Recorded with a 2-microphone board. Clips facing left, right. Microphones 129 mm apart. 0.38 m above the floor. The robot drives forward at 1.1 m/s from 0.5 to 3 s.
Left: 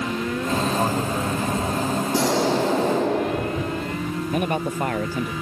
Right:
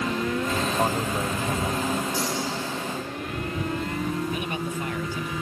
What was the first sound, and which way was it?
A man speaking, centre (ahead or behind).